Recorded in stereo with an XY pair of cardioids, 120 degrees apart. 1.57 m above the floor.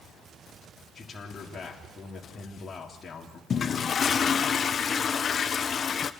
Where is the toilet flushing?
40° left, 1.1 m.